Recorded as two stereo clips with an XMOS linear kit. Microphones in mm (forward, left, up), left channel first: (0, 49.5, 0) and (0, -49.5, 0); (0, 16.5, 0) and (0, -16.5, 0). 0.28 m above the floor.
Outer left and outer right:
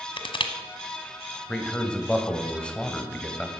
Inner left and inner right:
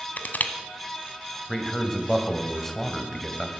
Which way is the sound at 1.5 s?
10° left (ahead or behind).